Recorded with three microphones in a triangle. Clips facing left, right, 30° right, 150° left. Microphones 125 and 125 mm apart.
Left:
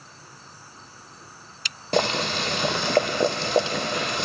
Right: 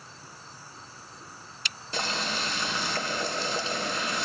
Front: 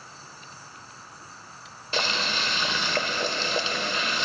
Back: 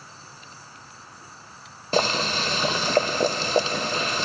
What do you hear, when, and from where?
1.9 s boiling: 105° left, 0.6 m